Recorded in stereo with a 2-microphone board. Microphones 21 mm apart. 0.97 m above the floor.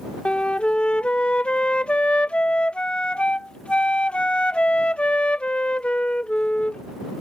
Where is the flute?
60° left (ahead or behind).